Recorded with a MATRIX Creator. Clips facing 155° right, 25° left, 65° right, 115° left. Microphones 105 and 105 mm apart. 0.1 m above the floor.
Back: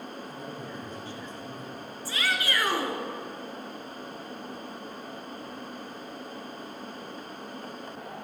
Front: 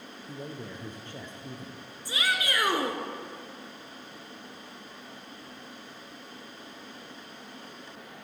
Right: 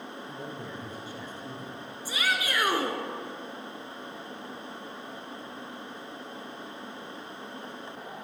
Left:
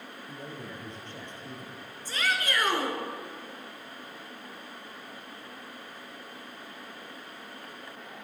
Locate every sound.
0.3 s a man speaking: 15° left, 2 m
2.0 s a shout: 10° right, 1.1 m